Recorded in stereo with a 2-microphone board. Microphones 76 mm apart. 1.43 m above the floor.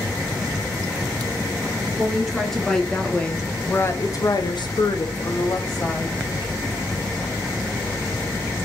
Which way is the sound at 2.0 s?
Centre (ahead or behind).